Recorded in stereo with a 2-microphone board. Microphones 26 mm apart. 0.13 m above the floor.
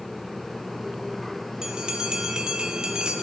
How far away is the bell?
About 1.6 m.